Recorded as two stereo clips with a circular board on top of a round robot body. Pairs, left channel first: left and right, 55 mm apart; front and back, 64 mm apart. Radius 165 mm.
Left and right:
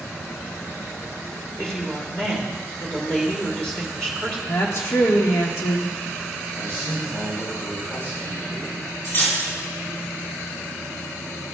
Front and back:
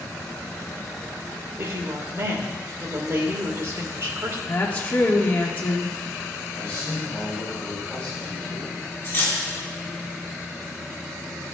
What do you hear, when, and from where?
1.6 s a woman speaking: 165° left, 1.5 m
4.5 s a woman speaking: 60° left, 1.7 m
6.5 s a man speaking: 65° left, 3.5 m
9.0 s cutlery clinking: 55° left, 3 m